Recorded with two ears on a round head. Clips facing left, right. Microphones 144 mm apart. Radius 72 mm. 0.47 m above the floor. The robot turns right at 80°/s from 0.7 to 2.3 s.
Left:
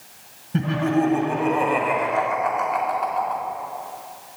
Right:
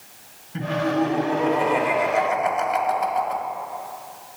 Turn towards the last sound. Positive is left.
turn(degrees=-120)